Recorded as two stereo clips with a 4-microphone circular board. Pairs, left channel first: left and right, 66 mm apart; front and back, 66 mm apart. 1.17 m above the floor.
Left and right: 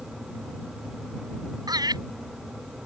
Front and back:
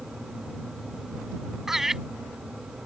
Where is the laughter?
95° right.